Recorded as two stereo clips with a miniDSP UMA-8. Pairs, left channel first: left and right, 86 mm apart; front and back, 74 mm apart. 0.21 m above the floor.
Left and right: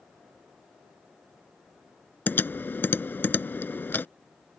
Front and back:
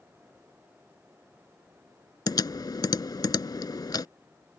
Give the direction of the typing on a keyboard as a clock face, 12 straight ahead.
11 o'clock.